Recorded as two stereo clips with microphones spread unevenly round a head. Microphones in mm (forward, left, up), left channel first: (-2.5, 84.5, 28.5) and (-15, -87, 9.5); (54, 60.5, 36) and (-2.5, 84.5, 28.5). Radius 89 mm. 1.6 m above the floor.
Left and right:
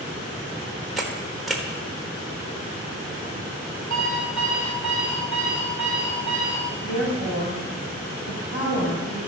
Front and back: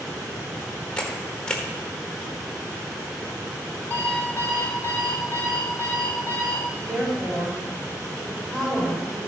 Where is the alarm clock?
30° left, 4 m.